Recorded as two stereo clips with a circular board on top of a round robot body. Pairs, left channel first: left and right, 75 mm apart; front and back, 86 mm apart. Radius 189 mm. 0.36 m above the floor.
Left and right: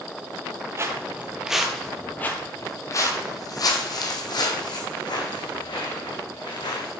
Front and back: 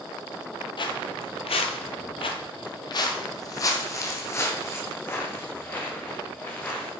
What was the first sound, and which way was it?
Footsteps, 35° right.